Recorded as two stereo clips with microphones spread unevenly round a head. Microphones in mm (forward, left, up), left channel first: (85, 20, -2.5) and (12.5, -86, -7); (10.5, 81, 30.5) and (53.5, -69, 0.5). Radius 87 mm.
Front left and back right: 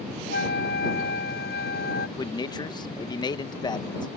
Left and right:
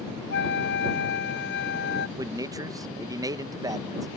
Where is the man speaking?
5° right.